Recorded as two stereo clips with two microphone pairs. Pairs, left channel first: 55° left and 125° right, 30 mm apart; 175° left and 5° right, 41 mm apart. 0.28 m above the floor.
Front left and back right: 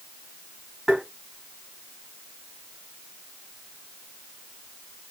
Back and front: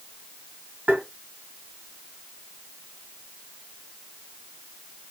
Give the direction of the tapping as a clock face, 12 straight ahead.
1 o'clock.